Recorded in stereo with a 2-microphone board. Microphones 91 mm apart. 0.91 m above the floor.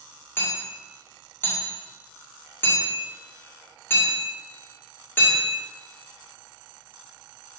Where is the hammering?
25° left (ahead or behind), 2 m.